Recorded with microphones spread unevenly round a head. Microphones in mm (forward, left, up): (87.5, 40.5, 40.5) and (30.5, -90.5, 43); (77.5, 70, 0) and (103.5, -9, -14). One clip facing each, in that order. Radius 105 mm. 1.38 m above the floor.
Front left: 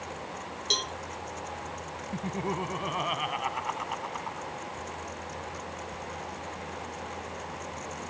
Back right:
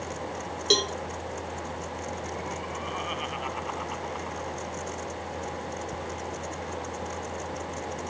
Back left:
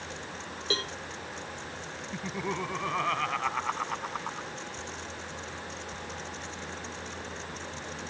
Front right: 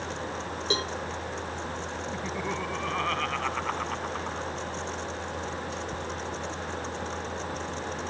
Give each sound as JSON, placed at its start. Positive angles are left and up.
{"t": 0.7, "sound": "a cowbell", "azimuth_deg": -145}
{"t": 2.1, "sound": "laughter", "azimuth_deg": 25}